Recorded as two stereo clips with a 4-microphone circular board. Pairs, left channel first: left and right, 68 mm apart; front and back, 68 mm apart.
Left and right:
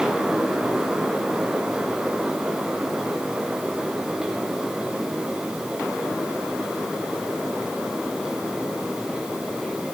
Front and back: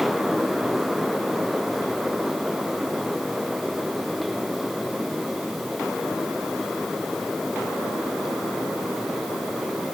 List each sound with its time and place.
Only background noise.